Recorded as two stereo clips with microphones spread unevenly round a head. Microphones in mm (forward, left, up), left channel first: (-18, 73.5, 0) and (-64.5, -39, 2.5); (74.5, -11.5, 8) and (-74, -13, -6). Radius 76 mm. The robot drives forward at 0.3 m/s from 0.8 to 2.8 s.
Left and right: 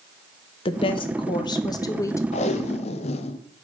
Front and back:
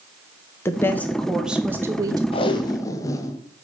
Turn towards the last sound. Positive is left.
turn(degrees=60)